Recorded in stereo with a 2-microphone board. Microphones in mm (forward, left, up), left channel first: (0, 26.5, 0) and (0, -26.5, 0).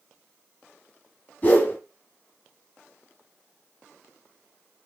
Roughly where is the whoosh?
Left.